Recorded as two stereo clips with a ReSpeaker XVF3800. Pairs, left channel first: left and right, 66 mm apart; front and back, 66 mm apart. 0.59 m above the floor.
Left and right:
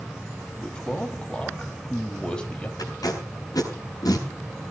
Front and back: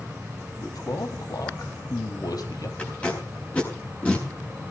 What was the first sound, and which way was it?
A man speaking, 15° left.